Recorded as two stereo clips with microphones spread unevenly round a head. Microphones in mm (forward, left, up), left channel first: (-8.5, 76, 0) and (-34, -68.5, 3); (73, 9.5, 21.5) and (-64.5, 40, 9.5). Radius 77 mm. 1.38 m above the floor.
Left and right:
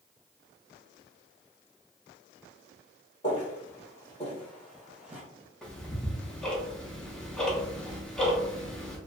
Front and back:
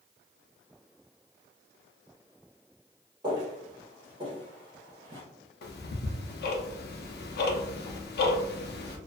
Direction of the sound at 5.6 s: 5° right.